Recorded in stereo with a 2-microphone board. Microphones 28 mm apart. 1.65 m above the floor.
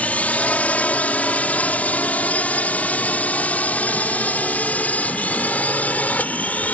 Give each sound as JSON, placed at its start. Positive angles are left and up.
{"t": 0.0, "sound": "a drone", "side_deg": 70}